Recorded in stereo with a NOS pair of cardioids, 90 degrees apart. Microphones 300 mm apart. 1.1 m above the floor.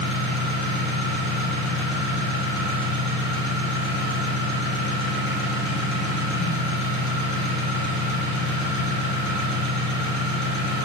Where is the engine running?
40° left, 4.5 m.